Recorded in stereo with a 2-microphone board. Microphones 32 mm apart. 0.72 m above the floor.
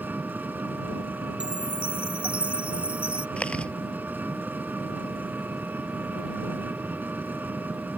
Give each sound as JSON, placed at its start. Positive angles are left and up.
{"t": 0.0, "sound": "an engine running", "side_deg": -75}
{"t": 1.4, "sound": "a chime", "side_deg": -35}
{"t": 3.4, "sound": "chewing", "side_deg": 35}